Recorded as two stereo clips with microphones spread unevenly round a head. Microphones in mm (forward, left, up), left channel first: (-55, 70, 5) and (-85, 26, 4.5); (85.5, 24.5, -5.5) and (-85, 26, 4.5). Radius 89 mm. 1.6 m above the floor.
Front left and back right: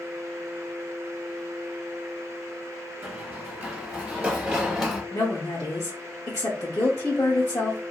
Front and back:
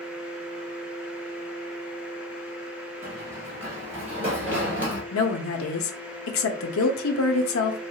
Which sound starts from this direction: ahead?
A woman speaking, at 5.1 s.